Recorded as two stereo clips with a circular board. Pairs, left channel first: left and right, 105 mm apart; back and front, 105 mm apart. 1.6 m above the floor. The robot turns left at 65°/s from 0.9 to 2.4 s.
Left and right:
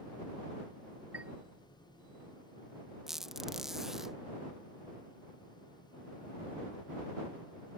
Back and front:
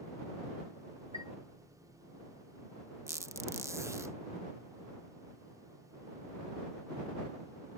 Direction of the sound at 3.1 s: 5° right.